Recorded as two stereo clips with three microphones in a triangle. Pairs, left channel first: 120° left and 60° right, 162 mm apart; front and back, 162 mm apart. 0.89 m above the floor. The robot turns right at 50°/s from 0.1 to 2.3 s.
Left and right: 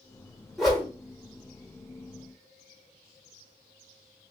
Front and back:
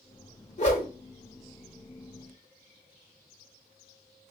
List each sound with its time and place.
0.6 s a whoosh: 30° left, 1.1 m; by 0.9 s 45° left, 1.1 m